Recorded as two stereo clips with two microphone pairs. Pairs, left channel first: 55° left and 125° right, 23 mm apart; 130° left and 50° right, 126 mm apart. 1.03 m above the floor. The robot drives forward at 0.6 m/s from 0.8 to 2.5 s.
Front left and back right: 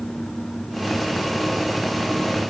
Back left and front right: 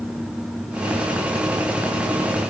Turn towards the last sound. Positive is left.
No sound to turn to.